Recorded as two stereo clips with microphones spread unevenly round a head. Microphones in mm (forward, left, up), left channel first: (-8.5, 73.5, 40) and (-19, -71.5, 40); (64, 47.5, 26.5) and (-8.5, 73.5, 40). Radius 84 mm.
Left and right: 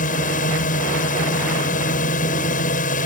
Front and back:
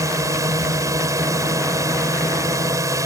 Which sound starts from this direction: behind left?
A drone, at 0.0 s.